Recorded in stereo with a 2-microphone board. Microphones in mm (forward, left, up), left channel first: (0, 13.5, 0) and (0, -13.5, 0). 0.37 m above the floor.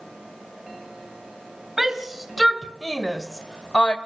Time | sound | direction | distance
1.8 | a shout | 10° right (ahead or behind) | 2 m